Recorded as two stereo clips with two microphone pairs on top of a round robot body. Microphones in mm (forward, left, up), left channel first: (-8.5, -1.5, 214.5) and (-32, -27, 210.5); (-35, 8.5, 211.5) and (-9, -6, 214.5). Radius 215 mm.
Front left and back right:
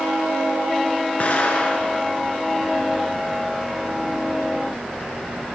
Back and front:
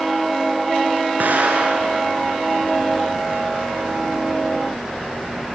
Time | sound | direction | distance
1.2 | an explosion | 5° right | 2.5 m